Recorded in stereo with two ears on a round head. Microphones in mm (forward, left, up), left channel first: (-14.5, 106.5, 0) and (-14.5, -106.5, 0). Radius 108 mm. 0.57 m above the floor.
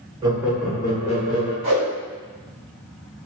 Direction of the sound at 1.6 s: 50° right (ahead or behind).